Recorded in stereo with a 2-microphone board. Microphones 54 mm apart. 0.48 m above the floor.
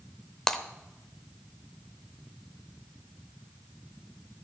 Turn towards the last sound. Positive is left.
turn(degrees=10)  # may be behind; listen again after turning